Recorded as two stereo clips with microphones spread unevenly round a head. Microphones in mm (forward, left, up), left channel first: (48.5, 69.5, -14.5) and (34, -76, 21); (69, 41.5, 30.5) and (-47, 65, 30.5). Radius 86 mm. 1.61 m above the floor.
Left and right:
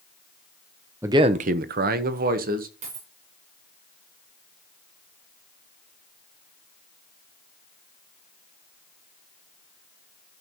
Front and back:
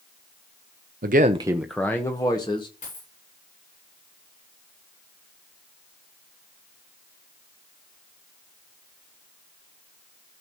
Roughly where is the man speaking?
Behind.